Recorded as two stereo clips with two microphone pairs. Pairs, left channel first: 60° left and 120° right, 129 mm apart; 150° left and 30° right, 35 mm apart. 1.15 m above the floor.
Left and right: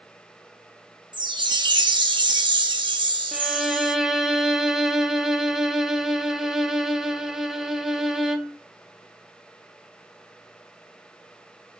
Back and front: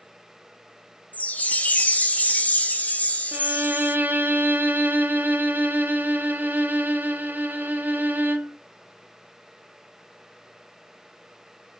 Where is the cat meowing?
I don't hear a cat meowing.